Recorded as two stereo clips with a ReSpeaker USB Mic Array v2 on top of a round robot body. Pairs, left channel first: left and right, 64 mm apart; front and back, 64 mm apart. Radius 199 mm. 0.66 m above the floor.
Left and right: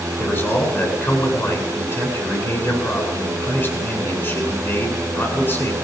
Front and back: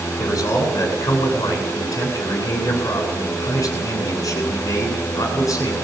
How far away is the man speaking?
About 9 m.